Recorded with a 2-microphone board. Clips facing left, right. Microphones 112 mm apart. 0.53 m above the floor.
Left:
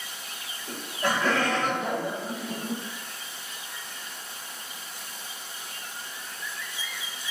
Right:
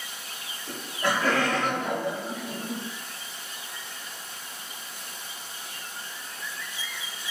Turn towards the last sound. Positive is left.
turn(degrees=25)  # may be behind; listen again after turning